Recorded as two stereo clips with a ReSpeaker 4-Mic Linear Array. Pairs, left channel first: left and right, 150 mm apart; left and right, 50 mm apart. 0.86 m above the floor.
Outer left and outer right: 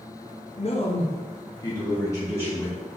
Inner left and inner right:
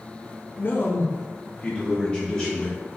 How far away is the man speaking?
About 0.9 m.